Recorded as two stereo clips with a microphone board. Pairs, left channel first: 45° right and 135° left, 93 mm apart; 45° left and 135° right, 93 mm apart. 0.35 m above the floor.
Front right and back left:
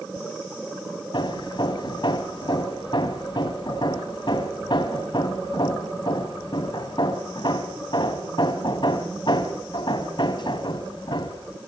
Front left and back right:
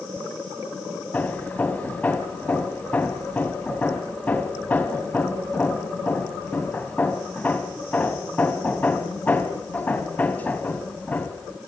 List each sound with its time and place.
1.1 s hammering: 25° right, 2 m